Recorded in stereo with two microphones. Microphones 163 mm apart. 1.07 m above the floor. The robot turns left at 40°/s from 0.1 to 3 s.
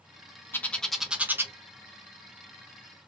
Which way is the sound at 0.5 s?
15° left (ahead or behind).